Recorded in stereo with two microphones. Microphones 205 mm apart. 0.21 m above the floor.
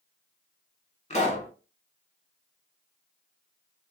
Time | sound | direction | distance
1.1 | a pop | 35° left (ahead or behind) | 0.7 m